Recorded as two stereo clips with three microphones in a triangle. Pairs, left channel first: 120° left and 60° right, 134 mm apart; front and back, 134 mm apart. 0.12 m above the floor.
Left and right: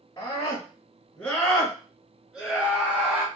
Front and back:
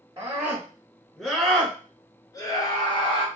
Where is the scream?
145° left, 1.7 m; by 3.2 s 10° left, 2 m.